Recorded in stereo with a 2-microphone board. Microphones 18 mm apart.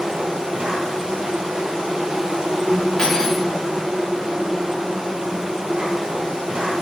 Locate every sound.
0.0 s an insect: 60° right (ahead or behind), 0.8 m
3.0 s cutlery clinking: 35° left (ahead or behind), 1.4 m